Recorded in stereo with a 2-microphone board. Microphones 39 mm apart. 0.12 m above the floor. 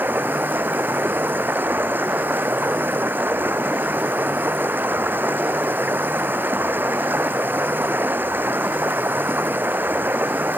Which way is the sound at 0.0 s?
65° right (ahead or behind).